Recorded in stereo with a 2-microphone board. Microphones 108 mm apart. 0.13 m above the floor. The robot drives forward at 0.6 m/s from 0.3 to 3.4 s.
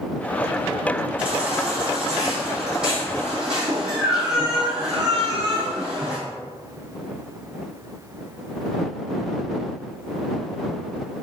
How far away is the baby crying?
About 3.5 m.